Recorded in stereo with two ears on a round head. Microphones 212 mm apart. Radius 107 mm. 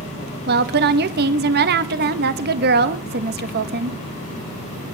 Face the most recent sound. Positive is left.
turn(degrees=-40)  # may be behind; listen again after turning